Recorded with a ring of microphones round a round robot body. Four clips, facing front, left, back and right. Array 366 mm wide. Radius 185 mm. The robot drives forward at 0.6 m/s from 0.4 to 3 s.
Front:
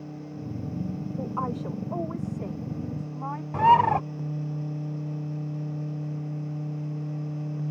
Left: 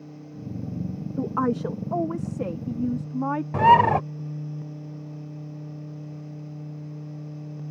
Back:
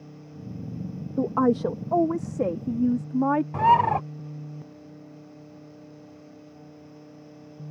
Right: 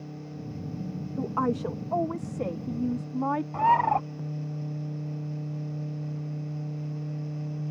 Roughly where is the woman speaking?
Behind.